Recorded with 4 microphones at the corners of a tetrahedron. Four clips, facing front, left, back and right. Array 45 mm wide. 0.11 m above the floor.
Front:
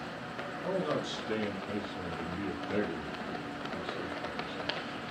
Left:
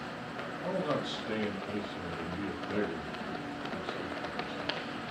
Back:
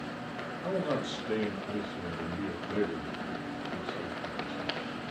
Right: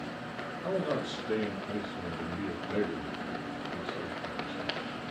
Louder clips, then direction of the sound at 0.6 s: Right 1 dB, back 1 dB; 110° left.